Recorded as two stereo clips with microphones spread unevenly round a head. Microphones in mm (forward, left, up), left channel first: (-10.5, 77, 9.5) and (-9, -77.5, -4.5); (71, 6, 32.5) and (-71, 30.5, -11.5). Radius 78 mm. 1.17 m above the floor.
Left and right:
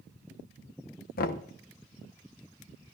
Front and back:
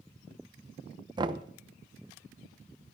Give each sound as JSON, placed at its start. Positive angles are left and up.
{"t": 1.2, "sound": "knocking", "azimuth_deg": 120, "distance_m": 0.8}